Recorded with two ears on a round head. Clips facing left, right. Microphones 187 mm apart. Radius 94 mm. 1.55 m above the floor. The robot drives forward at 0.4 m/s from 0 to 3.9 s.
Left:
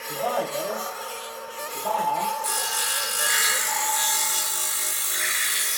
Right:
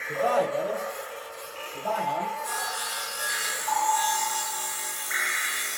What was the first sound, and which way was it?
A man speaking, 10° right (ahead or behind).